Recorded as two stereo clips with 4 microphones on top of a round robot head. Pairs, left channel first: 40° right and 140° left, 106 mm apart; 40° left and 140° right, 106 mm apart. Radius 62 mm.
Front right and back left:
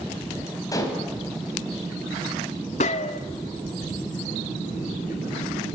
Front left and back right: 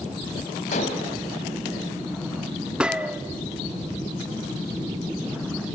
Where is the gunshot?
60° right, 1.3 m.